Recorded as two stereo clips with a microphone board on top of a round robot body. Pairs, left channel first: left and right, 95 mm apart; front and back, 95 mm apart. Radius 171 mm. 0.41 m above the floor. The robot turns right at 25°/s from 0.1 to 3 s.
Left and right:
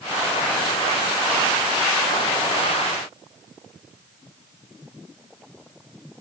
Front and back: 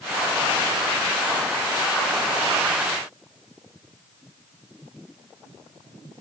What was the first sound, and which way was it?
Only background noise.